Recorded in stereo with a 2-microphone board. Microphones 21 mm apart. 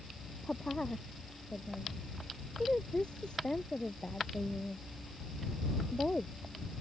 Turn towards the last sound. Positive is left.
turn(degrees=45)  # may be behind; listen again after turning